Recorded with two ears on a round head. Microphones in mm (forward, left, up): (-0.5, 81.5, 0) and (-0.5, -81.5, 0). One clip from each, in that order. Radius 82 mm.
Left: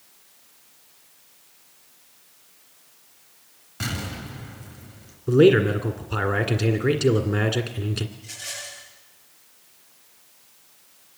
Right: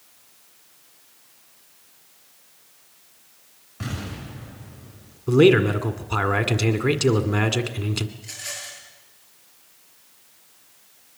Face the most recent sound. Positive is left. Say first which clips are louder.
# right 1 dB
turn(degrees=-35)  # may be behind; listen again after turning